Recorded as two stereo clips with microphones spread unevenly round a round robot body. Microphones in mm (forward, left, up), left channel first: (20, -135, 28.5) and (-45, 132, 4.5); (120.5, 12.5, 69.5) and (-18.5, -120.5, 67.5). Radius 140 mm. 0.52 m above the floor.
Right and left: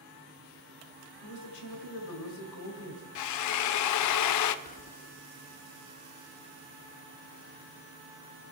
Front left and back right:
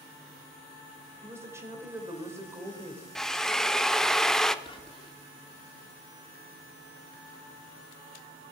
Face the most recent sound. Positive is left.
turn(degrees=-15)